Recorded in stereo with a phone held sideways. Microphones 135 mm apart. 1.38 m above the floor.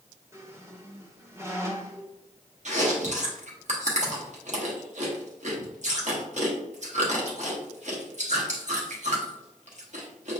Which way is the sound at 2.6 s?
60° right (ahead or behind).